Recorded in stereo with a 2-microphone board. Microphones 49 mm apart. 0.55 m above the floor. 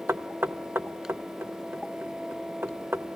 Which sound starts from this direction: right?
Knocking, at 0.1 s.